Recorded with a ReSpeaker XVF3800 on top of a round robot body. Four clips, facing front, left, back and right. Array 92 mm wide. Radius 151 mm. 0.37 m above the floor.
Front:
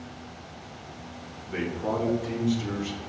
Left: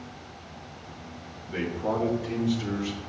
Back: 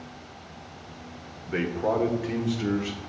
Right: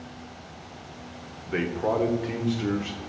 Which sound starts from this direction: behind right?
A man speaking, at 1.5 s.